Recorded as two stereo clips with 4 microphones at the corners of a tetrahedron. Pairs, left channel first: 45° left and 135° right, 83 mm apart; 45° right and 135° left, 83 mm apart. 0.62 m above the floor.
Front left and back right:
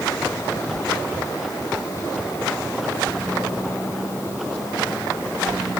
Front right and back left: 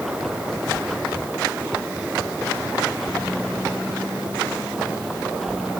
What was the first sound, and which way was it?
Only background noise.